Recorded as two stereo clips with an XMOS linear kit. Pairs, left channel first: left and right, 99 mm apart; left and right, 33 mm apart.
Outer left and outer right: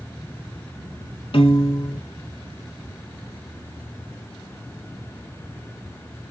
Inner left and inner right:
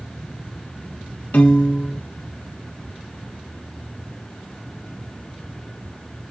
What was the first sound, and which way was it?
A piano, 65° left (ahead or behind).